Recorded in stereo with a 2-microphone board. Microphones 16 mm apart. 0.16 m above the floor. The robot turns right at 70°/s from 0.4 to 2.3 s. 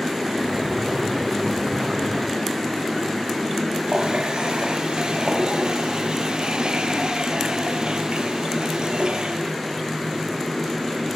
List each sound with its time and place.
3.9 s a running tap: 55° right (ahead or behind), 2.5 m